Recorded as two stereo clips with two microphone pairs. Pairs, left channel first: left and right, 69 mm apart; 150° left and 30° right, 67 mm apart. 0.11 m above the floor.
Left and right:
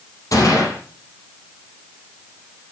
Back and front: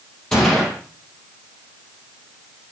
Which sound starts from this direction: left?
A gunshot, at 0.3 s.